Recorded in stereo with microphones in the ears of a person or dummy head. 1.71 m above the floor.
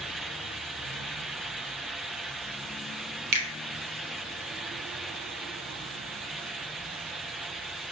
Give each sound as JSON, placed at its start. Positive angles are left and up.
{"t": 3.3, "sound": "a finger snap", "side_deg": -45, "distance_m": 0.8}